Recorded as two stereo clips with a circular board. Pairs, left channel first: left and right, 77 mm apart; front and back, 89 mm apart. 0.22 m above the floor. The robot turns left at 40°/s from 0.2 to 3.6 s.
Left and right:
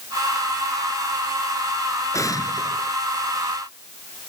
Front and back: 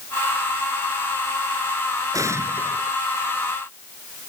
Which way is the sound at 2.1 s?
135° left.